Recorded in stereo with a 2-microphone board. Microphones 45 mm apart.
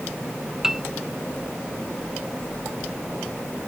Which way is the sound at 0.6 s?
10° right (ahead or behind).